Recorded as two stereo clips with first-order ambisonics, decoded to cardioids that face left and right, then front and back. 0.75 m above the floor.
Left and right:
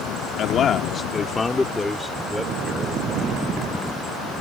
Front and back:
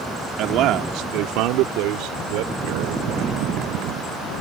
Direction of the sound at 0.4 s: 145° left.